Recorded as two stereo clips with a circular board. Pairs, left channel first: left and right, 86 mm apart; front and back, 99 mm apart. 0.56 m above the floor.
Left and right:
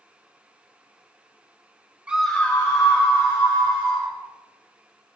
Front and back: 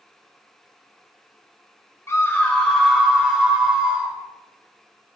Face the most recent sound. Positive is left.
turn(degrees=100)